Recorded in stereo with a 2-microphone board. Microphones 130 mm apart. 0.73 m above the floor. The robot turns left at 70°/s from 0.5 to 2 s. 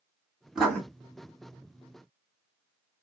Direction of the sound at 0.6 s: 5° right (ahead or behind).